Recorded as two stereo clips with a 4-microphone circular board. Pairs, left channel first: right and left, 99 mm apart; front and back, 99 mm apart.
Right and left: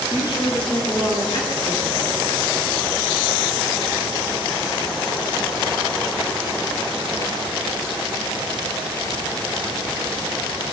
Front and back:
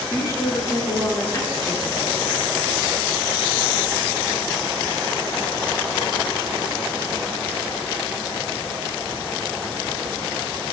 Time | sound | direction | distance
0.1 | a woman speaking | 55° right | 3.5 m